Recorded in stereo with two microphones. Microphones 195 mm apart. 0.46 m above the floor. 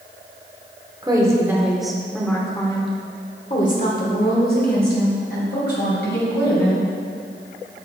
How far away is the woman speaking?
About 1.5 m.